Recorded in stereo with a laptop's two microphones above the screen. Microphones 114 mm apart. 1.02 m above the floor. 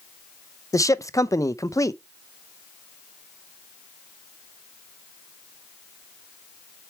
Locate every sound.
0.7 s a man speaking: 30° left (ahead or behind), 0.6 m